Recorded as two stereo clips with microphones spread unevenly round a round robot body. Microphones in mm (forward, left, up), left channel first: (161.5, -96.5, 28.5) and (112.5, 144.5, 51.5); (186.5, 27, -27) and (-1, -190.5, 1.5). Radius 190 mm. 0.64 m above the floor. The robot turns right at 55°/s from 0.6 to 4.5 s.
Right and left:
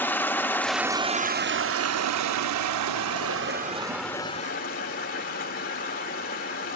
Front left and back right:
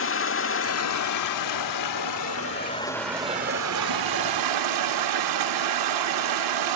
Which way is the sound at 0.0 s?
5° left.